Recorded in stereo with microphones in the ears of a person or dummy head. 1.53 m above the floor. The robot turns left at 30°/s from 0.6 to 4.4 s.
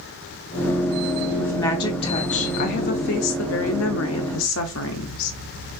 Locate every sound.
1.4 s a woman speaking: 170° left, 0.5 m; by 5.8 s 80° left, 0.5 m